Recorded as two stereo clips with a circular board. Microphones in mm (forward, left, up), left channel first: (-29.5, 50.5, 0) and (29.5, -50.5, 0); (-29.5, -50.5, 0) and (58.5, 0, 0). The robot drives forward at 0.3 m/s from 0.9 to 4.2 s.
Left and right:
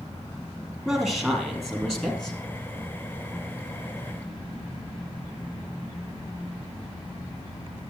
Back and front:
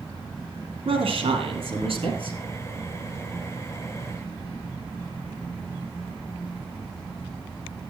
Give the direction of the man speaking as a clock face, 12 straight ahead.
11 o'clock.